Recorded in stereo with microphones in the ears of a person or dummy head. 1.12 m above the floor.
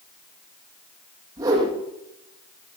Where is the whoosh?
20° right (ahead or behind), 10 m.